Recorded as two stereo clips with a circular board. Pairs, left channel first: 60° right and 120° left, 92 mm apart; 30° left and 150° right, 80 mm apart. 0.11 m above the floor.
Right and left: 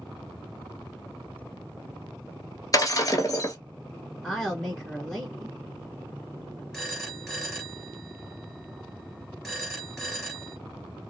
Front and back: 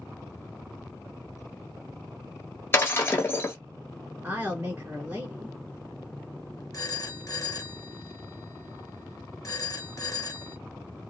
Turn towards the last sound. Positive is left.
turn(degrees=30)